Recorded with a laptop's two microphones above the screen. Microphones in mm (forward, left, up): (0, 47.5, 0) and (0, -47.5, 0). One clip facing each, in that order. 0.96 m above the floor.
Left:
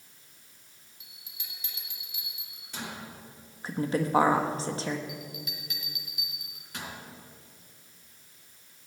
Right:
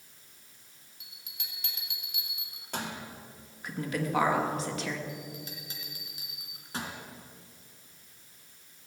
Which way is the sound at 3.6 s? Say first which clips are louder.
Left 4 dB; 35° left (ahead or behind).